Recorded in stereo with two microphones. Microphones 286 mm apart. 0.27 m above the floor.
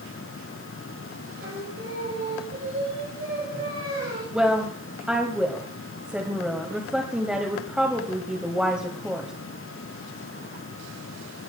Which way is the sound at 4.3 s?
5° right (ahead or behind).